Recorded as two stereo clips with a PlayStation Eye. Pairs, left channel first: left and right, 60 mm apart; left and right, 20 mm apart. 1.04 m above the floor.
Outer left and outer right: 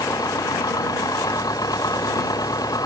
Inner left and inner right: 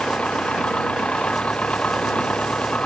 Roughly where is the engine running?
Left.